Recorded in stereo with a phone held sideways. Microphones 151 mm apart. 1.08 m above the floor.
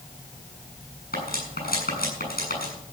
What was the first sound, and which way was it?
Cutlery clinking, 85° left.